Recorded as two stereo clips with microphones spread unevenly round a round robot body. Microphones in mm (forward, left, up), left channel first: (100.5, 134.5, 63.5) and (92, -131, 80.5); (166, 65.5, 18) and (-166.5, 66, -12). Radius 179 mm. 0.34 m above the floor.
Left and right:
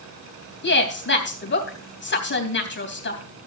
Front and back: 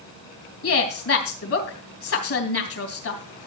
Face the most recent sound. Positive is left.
turn(degrees=45)